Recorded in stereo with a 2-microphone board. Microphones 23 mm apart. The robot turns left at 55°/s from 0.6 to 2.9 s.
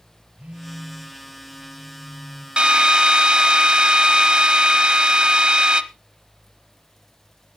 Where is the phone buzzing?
95° right, 3.5 m; by 2.5 s 160° left, 3.5 m.